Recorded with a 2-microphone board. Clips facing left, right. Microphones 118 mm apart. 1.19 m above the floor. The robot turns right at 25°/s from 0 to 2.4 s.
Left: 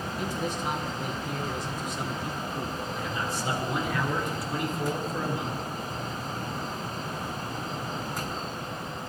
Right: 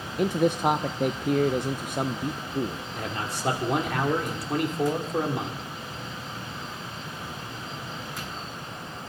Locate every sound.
0.2 s a man speaking: 105° right, 0.6 m; by 2.8 s 50° right, 0.6 m
2.9 s a man speaking: 85° right, 2.5 m